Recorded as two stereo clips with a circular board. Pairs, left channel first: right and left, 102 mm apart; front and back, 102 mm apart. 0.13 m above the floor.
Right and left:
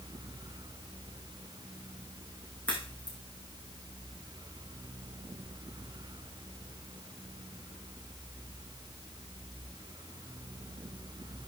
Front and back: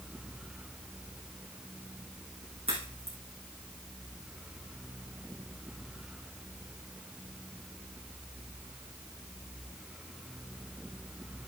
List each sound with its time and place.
2.7 s a crack: 165° right, 4.5 m